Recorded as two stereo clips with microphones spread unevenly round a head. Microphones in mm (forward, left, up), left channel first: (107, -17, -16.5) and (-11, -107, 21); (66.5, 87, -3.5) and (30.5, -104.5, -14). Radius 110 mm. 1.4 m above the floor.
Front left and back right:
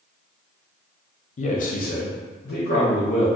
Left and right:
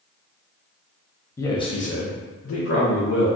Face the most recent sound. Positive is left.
turn(degrees=80)